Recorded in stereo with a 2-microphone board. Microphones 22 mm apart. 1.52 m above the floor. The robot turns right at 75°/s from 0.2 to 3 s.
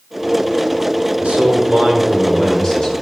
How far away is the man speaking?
About 5 m.